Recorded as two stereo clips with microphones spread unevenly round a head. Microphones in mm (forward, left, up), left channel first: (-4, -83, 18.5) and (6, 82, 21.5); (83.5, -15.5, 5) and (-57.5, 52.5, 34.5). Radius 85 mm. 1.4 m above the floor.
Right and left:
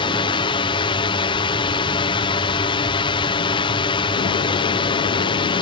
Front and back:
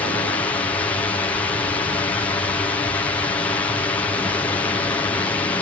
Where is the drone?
75° right.